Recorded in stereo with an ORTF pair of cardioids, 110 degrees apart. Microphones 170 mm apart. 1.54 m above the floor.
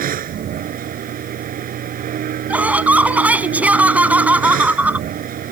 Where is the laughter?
10° right.